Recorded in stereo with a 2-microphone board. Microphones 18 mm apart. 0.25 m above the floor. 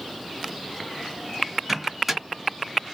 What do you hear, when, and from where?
1.7 s a microwave: 10° right (ahead or behind), 2.0 m